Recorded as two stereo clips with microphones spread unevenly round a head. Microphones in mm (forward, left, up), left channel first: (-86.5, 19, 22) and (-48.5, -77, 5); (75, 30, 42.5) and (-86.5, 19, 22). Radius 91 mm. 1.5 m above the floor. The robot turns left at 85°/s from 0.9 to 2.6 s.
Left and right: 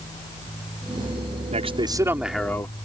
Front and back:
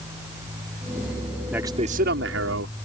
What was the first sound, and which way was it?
A man speaking, 90° right.